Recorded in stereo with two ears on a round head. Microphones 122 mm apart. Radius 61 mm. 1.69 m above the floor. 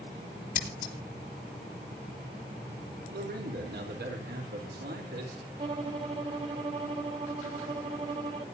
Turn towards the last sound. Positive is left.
turn(degrees=-40)  # may be behind; listen again after turning